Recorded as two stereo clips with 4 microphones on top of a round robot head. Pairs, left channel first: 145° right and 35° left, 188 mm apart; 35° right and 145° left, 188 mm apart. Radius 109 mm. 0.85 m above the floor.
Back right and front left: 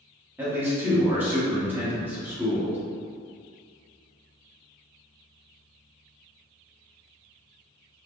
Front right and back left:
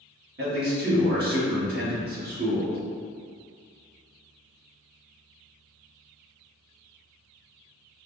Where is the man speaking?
115° left, 1.6 m.